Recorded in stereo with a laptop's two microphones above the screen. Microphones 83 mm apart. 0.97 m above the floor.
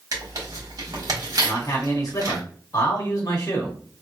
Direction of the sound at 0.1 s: 55° right (ahead or behind).